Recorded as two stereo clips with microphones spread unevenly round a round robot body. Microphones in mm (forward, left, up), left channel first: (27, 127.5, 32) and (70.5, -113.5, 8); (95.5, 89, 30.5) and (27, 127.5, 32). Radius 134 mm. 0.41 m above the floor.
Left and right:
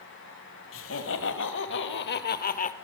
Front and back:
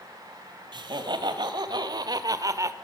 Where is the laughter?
145° left, 2.5 m; by 2.7 s 150° left, 1.1 m.